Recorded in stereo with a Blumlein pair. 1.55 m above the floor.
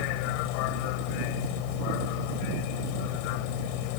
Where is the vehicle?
45° left.